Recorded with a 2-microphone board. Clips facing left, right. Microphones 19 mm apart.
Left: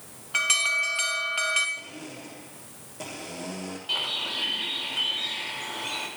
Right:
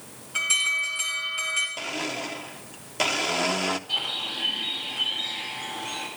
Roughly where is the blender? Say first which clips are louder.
Right 10 dB; right.